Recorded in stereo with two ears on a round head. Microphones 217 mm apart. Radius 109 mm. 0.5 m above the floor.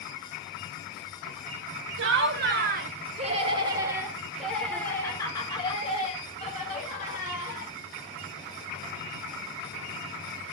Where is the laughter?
55° right (ahead or behind), 2 m; by 7.7 s 40° left (ahead or behind), 3.5 m.